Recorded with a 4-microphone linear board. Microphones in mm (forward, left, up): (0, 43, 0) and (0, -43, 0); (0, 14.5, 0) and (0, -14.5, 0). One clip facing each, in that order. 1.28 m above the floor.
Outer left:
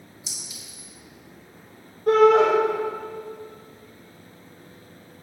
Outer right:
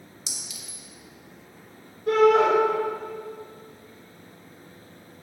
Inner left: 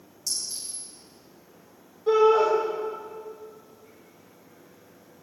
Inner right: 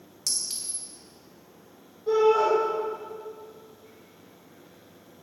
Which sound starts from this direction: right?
A clink, at 0.3 s.